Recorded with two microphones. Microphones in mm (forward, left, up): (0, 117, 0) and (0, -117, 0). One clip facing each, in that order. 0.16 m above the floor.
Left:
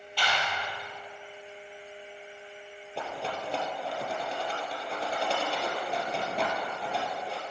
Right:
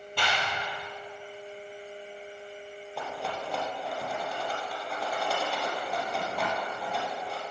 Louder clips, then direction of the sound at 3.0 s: Left 1 dB; 30° left (ahead or behind).